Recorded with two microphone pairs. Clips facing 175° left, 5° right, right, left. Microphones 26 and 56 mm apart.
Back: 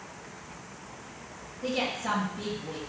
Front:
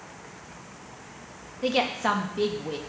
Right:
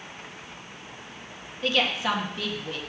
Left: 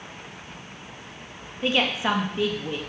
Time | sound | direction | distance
1.6 | a woman speaking | 20° left | 1.3 m